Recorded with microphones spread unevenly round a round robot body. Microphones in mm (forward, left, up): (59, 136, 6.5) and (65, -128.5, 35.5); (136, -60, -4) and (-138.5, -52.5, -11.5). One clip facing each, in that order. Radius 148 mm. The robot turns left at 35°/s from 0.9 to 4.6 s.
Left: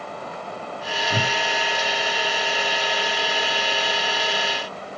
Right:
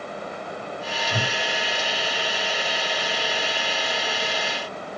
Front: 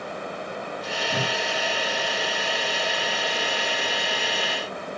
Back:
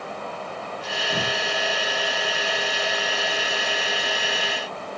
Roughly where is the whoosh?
Left.